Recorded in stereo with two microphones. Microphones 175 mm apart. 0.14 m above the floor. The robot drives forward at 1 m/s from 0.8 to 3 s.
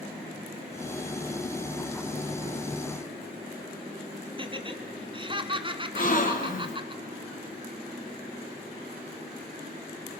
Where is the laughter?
30° right (ahead or behind), 1.6 m.